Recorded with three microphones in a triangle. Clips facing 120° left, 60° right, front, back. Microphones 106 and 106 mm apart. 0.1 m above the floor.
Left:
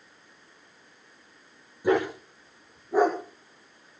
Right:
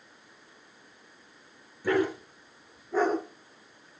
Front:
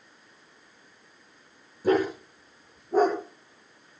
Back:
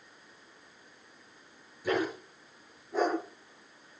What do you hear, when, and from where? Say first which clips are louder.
1.8 s a dog barking: left 2 dB, front 7 dB; 50° left, 8.5 m; by 4.0 s 40° left, 8 m